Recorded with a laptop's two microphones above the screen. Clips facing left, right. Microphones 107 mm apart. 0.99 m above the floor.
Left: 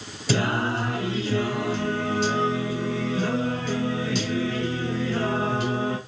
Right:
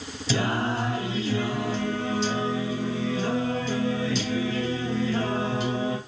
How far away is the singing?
About 2.5 m.